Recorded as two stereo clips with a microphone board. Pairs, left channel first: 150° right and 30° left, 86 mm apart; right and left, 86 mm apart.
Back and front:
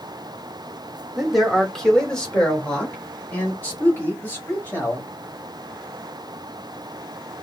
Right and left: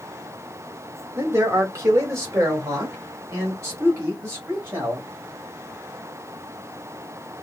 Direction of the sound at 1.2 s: 115° left.